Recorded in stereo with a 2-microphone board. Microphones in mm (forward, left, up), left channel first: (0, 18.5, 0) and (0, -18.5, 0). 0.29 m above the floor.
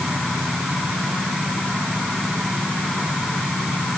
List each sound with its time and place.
Only background noise.